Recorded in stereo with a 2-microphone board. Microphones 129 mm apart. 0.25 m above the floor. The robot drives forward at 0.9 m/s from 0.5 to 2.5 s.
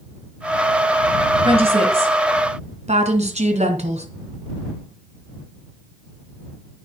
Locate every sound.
1.4 s a woman speaking: 45° right (ahead or behind), 3 m; by 4.0 s 55° right (ahead or behind), 2.5 m